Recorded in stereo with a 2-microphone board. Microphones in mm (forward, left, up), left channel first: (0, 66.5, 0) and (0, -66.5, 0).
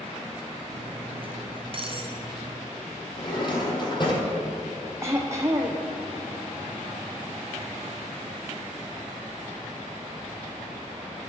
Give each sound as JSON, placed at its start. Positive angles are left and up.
{"t": 0.7, "sound": "cutlery clinking", "side_deg": -45, "distance_m": 0.9}
{"t": 3.2, "sound": "a drawer", "side_deg": 35, "distance_m": 1.7}
{"t": 5.0, "sound": "throat clearing", "side_deg": -20, "distance_m": 1.0}